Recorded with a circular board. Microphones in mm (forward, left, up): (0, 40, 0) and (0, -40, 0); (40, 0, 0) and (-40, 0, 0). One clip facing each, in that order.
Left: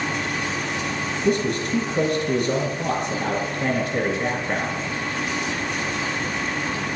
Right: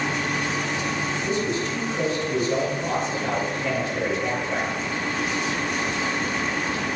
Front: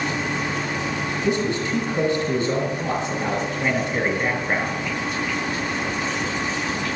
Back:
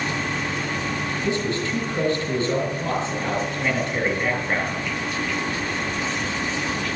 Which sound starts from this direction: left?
A man speaking, at 1.2 s.